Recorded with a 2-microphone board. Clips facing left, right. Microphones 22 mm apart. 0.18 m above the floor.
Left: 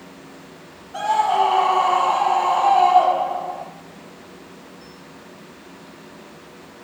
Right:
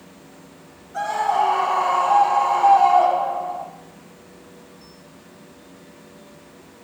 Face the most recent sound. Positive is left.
turn(degrees=65)  # may be behind; listen again after turning